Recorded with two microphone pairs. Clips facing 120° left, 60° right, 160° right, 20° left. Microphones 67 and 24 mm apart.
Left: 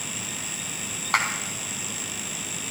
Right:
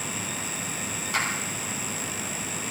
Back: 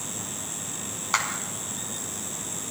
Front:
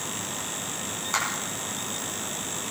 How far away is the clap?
About 3 m.